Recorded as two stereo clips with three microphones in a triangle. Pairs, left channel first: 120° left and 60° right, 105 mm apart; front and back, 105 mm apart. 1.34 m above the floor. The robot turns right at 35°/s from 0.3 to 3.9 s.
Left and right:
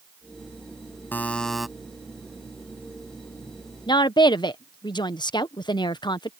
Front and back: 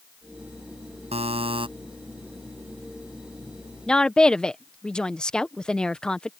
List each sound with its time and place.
1.1 s a buzzer: 165° right; by 1.7 s 145° right
3.9 s a woman speaking: 80° left